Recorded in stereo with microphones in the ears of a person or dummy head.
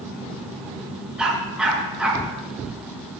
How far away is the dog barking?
About 7.5 m.